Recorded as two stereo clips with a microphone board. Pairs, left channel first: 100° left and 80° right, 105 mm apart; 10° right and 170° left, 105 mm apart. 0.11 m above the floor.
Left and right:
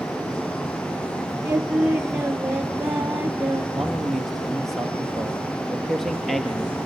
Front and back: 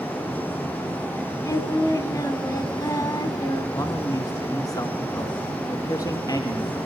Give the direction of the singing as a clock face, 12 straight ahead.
1 o'clock.